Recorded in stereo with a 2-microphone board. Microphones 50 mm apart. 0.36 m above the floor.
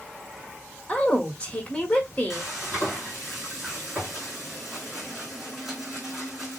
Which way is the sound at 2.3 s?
5° right (ahead or behind).